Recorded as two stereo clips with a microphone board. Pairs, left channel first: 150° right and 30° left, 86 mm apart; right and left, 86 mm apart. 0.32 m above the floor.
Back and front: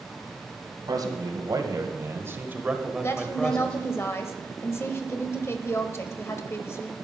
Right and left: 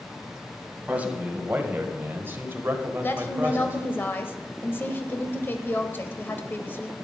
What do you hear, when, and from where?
0.9 s a man speaking: 25° left, 2.0 m; by 3.8 s 145° left, 1.4 m
3.0 s a woman speaking: 130° right, 1.1 m